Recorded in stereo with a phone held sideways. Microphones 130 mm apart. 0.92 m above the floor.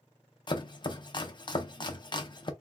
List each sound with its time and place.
0.5 s chopping: 35° left (ahead or behind), 0.6 m